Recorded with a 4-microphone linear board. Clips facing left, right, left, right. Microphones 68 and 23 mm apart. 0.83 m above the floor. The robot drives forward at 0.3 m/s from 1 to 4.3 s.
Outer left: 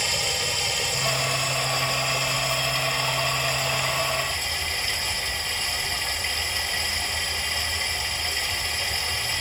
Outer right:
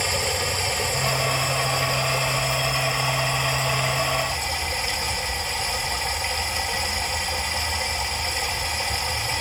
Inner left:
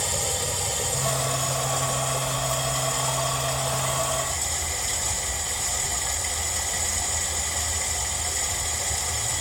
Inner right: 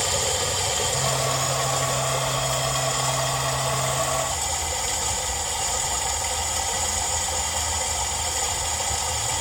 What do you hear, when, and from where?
0.0 s running water: 35° right (ahead or behind), 1.7 m; by 9.4 s 20° right (ahead or behind), 2.5 m